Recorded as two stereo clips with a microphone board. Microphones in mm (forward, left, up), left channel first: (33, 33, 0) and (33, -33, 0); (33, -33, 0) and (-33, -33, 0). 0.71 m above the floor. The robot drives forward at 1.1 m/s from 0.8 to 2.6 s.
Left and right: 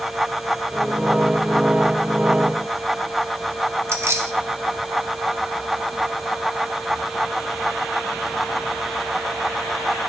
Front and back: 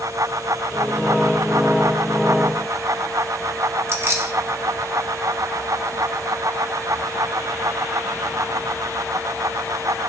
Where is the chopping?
I don't hear chopping.